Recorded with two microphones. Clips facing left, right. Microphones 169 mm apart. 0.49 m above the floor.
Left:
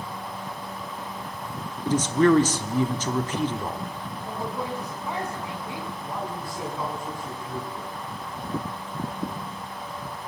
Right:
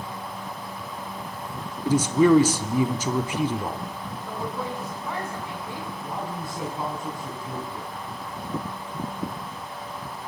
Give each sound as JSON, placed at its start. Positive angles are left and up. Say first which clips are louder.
{"t": 1.8, "sound": "a man speaking", "louder": "right 1 dB", "side_deg": -10, "distance_m": 0.7}
{"t": 4.2, "sound": "a woman speaking", "louder": "even", "side_deg": 15, "distance_m": 3.5}
{"t": 6.0, "sound": "a man speaking", "louder": "right 1 dB", "side_deg": -25, "distance_m": 4.5}